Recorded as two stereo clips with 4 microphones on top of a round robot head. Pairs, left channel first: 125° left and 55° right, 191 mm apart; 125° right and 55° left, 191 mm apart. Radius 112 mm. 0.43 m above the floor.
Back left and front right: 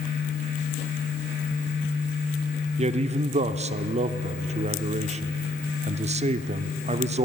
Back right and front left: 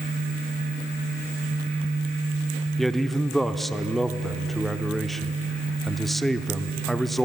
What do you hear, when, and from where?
2.8 s a man speaking: 35° right, 0.9 m